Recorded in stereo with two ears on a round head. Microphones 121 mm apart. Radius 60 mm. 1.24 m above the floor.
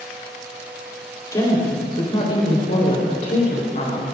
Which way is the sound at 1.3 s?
30° left (ahead or behind).